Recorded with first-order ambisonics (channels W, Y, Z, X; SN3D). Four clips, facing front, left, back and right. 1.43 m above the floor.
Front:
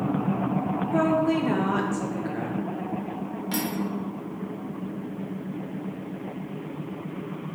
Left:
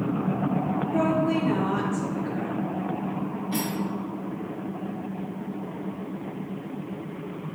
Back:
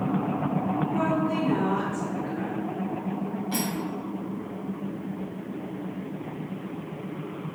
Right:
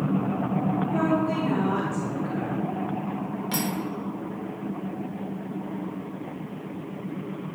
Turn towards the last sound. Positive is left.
turn(degrees=-60)